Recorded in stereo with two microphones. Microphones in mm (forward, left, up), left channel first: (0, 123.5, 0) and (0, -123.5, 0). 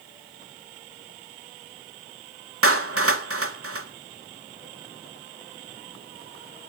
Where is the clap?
70° right (ahead or behind), 1.6 m.